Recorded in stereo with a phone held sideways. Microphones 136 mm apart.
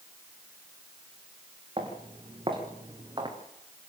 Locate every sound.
1.8 s footsteps: 40° right (ahead or behind), 4.5 m; by 3.4 s 35° right (ahead or behind), 4 m